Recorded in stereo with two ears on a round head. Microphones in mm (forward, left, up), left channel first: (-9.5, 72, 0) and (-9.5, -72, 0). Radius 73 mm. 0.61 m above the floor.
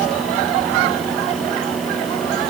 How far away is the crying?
I don't hear crying.